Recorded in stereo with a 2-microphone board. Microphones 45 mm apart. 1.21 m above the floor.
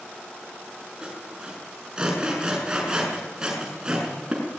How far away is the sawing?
About 6.5 m.